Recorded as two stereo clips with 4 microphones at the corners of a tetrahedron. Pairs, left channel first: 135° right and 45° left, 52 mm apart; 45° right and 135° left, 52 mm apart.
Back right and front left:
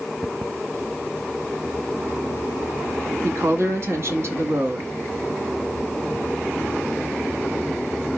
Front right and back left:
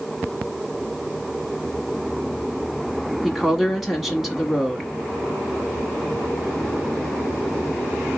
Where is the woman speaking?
50° left, 1.1 m.